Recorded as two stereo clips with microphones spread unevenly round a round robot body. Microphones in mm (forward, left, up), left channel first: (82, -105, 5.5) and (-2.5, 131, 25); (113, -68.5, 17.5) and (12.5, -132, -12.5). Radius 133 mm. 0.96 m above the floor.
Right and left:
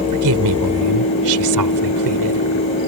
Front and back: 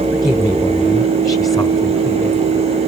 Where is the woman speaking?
115° left.